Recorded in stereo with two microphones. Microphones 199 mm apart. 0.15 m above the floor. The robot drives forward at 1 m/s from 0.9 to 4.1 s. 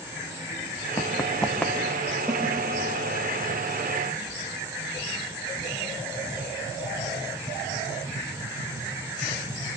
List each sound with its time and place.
1.0 s running footsteps: 15° left (ahead or behind), 0.9 m; by 2.2 s 5° left (ahead or behind), 2.5 m
2.3 s a snare drum: 5° right (ahead or behind), 6.5 m